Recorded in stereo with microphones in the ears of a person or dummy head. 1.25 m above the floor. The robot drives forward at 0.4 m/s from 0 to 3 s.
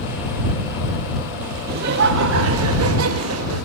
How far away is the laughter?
About 0.8 m.